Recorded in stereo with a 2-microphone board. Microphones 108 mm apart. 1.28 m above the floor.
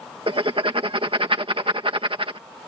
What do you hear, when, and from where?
0.3 s writing: 55° right (ahead or behind)